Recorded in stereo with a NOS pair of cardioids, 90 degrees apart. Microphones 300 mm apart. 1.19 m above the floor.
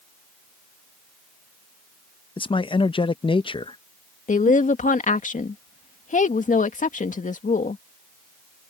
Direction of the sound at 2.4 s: 15° left.